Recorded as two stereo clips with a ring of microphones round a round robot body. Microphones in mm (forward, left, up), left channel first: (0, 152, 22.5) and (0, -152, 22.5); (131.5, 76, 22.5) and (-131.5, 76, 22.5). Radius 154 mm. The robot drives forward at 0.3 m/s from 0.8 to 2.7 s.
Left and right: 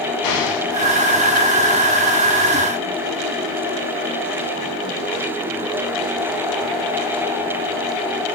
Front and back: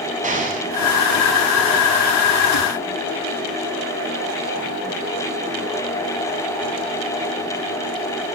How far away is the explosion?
About 5.5 m.